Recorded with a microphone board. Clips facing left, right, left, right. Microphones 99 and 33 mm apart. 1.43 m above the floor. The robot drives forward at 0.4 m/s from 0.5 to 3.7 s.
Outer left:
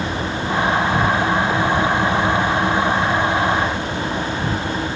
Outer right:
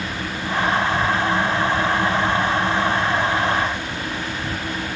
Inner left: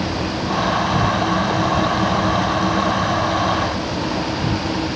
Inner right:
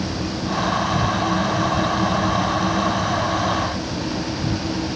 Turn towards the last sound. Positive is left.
turn(degrees=55)  # may be behind; listen again after turning